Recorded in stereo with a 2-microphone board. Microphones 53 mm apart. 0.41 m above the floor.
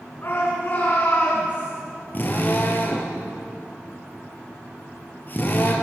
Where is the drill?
35° left (ahead or behind), 5 m.